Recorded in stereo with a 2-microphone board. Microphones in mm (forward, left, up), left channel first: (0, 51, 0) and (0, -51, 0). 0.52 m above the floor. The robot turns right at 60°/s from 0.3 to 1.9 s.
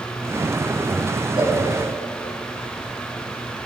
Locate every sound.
1.4 s a cowbell: 55° right (ahead or behind), 3 m; by 1.6 s 45° right (ahead or behind), 3 m